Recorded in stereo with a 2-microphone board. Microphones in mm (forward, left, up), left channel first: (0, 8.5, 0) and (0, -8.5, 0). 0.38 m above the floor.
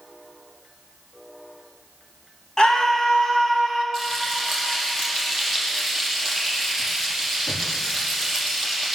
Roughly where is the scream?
Left.